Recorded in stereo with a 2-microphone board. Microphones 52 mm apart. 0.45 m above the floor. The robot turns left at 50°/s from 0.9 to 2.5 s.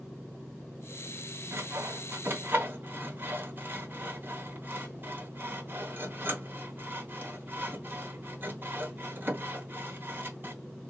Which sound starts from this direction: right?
Sawing, at 1.5 s.